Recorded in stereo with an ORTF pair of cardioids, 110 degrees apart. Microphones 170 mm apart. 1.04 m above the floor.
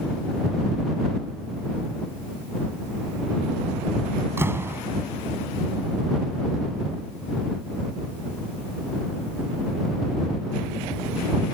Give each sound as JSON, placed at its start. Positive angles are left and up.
{"t": 4.4, "sound": "a door slam", "azimuth_deg": -15}